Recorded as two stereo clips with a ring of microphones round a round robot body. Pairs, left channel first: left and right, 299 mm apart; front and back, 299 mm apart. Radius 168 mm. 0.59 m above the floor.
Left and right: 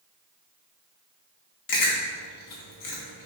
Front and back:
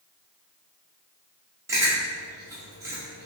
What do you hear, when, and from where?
1.7 s chewing: 100° left, 1.0 m